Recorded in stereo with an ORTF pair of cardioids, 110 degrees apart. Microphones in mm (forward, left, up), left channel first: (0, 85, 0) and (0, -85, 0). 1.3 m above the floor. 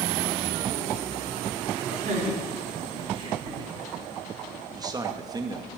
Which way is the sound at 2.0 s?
40° right.